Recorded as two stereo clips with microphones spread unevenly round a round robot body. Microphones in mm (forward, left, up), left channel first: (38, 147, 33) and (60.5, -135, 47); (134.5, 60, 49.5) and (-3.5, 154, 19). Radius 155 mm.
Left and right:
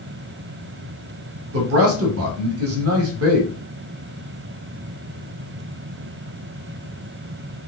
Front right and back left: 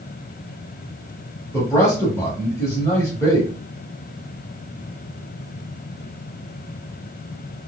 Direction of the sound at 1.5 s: 115° right.